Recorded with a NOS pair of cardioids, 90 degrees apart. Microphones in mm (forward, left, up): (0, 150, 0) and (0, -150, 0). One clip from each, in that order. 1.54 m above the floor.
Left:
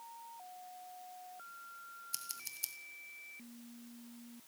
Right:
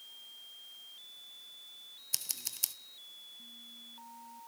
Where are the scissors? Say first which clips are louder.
Right 8 dB; 45° right, 1.4 m.